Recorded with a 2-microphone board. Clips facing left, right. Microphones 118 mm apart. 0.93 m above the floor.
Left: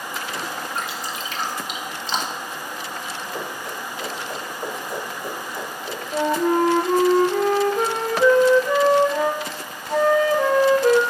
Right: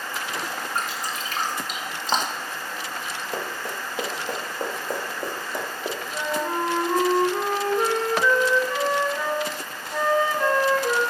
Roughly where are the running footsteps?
Right.